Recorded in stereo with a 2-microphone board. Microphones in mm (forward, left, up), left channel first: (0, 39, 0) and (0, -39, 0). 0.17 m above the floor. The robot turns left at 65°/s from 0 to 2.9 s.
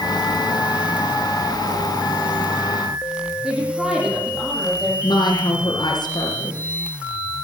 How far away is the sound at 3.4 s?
About 7.5 m.